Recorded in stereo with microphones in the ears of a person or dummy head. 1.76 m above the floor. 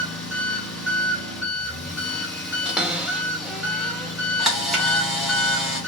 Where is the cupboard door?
5° right (ahead or behind), 1.0 m.